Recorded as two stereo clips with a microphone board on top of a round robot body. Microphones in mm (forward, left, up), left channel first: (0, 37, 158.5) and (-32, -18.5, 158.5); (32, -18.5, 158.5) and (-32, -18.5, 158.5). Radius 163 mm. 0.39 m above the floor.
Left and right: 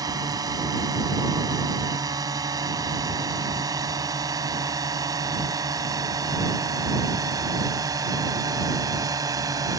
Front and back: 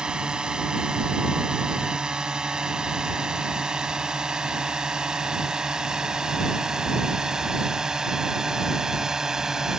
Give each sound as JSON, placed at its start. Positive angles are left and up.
{"t": 0.0, "sound": "a drone", "azimuth_deg": -100}